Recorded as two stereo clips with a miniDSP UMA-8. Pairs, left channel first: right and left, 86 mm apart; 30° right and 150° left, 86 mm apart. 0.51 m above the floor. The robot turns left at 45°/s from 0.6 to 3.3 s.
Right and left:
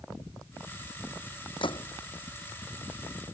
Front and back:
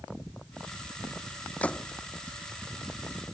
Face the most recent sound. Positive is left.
turn(degrees=180)